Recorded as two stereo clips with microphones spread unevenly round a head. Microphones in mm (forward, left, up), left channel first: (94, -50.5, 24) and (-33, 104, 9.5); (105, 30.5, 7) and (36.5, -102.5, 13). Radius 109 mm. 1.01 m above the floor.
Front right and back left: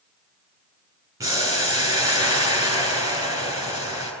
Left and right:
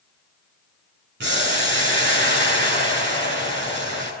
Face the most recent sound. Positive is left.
turn(degrees=-155)